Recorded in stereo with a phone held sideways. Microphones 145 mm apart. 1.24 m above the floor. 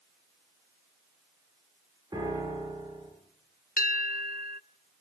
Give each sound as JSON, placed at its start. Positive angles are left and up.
{"t": 2.1, "sound": "a piano", "side_deg": -25, "distance_m": 8.0}
{"t": 3.8, "sound": "a bell", "side_deg": 75, "distance_m": 0.5}